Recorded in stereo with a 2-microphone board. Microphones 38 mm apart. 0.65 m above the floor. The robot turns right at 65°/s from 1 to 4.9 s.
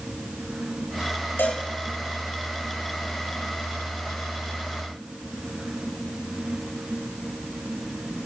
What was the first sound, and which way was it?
A cowbell, 80° left.